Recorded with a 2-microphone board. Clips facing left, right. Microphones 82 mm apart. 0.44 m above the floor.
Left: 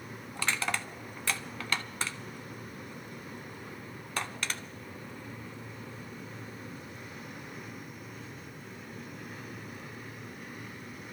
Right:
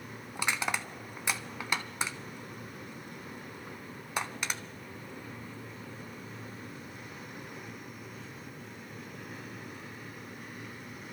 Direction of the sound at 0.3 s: 15° right (ahead or behind).